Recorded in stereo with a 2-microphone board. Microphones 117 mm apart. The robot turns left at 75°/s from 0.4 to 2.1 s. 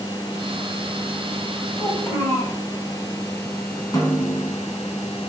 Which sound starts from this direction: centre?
A child speaking, at 1.8 s.